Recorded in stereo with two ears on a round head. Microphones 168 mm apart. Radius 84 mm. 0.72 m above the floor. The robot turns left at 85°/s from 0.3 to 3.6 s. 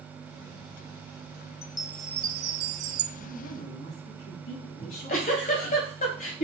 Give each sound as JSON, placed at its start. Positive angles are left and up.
{"t": 1.6, "sound": "a chime", "azimuth_deg": 35, "distance_m": 0.5}
{"t": 3.1, "sound": "a woman speaking", "azimuth_deg": 130, "distance_m": 4.5}
{"t": 4.8, "sound": "a giggle", "side_deg": 40, "distance_m": 1.7}